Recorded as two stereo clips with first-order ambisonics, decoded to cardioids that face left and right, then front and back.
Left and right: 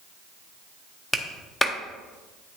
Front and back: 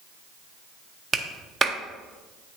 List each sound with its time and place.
1.1 s a clap: 165° left, 0.6 m